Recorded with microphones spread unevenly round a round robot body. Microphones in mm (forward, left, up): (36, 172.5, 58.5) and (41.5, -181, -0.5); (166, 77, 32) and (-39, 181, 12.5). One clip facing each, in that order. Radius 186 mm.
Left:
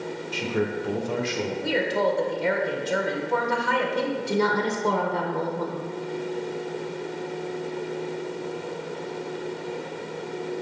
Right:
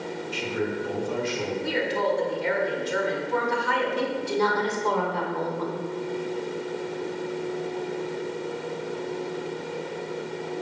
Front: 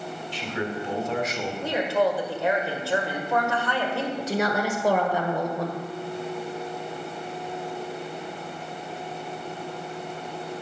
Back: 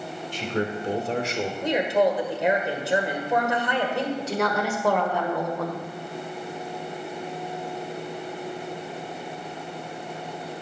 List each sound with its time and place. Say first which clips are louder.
0.3 s a man speaking: left 2 dB, back 3 dB; 130° left, 1.6 m; by 1.5 s 95° left, 1.7 m
1.6 s a woman speaking: left 3 dB, back 2 dB; 85° left, 2.5 m
4.2 s a woman speaking: left 1 dB, even; 55° left, 1.5 m